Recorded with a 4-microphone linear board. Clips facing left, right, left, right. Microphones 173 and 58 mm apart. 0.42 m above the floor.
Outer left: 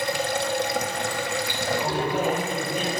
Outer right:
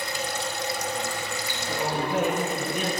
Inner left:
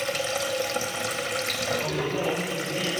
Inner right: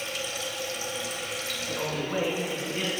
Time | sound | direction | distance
0.0 | running water | 75° left (ahead or behind) | 0.7 m
1.7 | a man speaking | 65° right (ahead or behind) | 4 m